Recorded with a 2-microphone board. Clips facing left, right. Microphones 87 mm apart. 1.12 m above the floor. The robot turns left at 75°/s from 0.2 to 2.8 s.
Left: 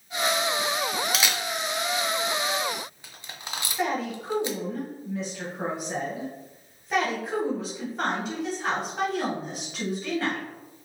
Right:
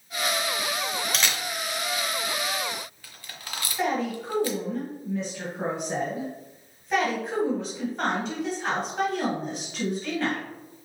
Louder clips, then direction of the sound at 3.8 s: Right 2 dB; centre (ahead or behind).